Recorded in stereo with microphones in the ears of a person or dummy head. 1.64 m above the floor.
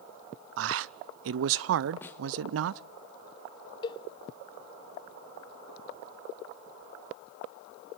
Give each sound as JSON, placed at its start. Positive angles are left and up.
{"t": 0.6, "sound": "a man speaking", "side_deg": -70, "distance_m": 0.6}
{"t": 2.0, "sound": "a snare drum", "side_deg": 15, "distance_m": 1.0}
{"t": 3.8, "sound": "a cowbell", "side_deg": 25, "distance_m": 0.9}